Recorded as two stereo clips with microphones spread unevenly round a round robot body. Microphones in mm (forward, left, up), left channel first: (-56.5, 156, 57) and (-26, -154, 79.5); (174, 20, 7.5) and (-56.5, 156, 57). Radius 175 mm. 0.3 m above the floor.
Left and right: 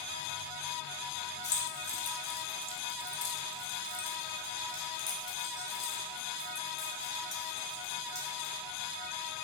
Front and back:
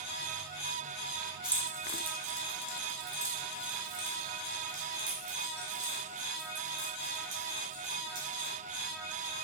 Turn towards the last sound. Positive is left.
turn(degrees=-170)